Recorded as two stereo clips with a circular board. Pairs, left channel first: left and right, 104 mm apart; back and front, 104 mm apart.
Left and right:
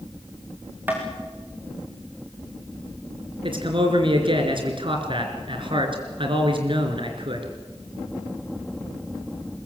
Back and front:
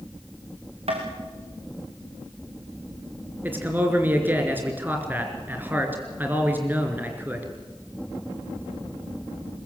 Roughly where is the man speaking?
Right.